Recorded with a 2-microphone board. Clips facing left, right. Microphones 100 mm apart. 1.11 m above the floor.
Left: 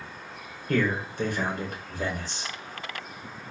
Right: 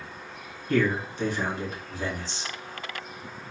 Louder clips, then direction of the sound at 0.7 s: Right 1 dB; 55° left (ahead or behind).